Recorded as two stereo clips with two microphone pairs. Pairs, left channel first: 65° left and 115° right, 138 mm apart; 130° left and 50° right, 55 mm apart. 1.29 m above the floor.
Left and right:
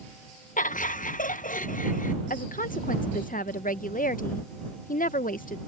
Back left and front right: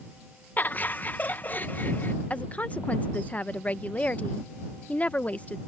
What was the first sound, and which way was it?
Laughter, 75° left.